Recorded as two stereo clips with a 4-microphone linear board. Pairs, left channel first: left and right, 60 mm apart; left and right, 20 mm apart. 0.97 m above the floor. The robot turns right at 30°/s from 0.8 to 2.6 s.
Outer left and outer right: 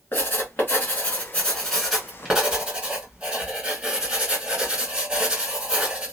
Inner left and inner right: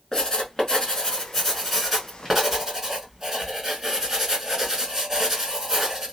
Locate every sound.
0.1 s writing: 140° left, 1.7 m; by 6.1 s 165° right, 1.7 m